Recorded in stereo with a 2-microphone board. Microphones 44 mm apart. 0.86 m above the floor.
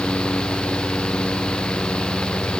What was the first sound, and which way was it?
Only background noise.